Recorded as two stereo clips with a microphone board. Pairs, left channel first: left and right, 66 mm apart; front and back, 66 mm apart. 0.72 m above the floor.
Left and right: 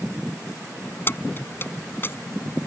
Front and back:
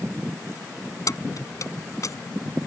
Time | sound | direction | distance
1.1 | keys jangling | 35° left | ?